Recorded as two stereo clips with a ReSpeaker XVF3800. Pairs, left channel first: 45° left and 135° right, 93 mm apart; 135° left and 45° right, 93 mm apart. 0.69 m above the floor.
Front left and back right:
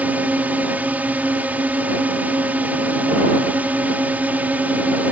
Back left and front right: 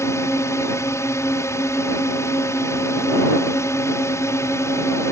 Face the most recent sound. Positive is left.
turn(degrees=165)